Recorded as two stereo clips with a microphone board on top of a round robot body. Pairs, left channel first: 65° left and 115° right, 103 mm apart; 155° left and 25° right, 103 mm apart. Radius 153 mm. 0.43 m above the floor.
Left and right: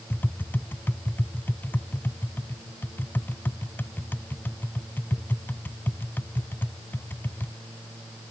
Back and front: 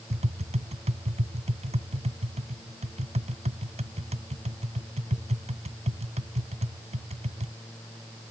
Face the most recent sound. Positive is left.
turn(degrees=-5)